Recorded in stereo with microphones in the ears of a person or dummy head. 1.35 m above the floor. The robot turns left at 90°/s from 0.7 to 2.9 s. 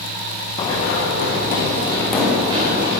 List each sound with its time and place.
0.6 s running footsteps: 30° left (ahead or behind), 5.5 m; by 3.0 s 65° right (ahead or behind), 9 m